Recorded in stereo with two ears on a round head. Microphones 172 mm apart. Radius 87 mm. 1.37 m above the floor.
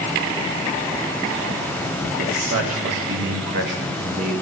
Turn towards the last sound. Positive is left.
turn(degrees=-40)  # may be behind; listen again after turning